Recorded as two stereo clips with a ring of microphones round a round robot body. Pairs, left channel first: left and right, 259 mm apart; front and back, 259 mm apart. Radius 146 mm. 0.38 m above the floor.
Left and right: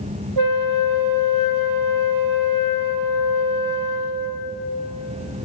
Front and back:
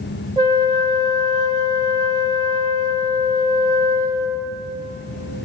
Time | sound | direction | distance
0.4 | a flute | 105° right | 0.6 m